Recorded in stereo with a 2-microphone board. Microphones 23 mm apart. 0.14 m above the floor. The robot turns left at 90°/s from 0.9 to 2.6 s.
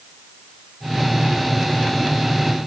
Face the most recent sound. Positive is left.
No sound to turn to.